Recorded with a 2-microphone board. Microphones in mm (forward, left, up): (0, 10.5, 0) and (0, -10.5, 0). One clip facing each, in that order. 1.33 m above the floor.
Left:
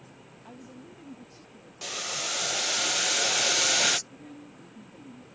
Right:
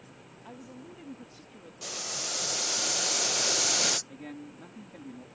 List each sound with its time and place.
0.5 s a woman speaking: 10° right (ahead or behind); by 1.7 s 35° right (ahead or behind)
1.8 s boiling: 25° left (ahead or behind)
4.1 s a man speaking: 80° right